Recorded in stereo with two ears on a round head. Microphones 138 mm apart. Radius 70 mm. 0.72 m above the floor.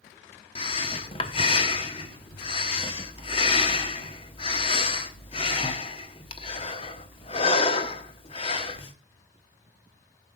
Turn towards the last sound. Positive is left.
turn(degrees=40)  # may be behind; listen again after turning